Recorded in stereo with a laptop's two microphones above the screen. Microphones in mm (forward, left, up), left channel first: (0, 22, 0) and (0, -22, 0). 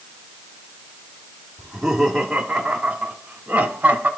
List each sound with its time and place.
1.6 s laughter: centre (ahead or behind), 2 m; by 4.1 s 30° right (ahead or behind), 2.5 m